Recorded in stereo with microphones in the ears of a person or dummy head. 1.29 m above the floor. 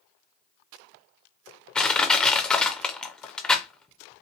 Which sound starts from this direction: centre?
Crushing, at 1.8 s.